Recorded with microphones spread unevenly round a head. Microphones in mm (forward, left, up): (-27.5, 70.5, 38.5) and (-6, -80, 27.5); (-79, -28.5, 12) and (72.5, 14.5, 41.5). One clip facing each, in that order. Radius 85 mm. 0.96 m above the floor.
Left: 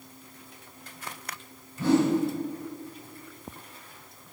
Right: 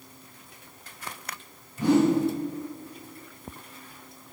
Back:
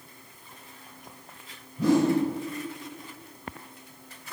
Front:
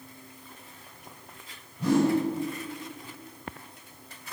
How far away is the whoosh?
About 2.5 m.